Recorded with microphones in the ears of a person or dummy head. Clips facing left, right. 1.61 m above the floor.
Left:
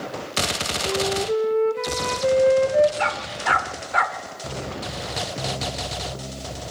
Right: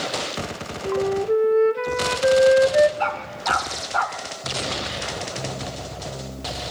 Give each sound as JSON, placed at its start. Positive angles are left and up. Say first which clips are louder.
{"t": 0.8, "sound": "a flute", "louder": "right 3 dB", "side_deg": -10, "distance_m": 0.9}
{"t": 3.0, "sound": "a dog barking", "louder": "even", "side_deg": 15, "distance_m": 1.3}